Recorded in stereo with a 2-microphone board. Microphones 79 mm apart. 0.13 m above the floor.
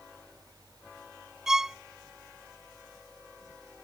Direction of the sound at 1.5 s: 5° right (ahead or behind).